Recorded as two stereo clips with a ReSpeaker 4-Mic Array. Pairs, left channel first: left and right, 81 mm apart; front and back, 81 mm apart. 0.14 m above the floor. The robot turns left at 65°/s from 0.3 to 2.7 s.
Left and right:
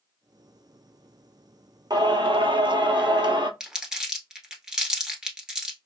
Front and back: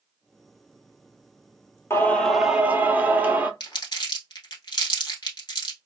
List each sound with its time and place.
1.9 s singing: 60° right, 0.5 m; by 3.5 s 110° right, 0.5 m
3.6 s crumpling: 10° right, 1.1 m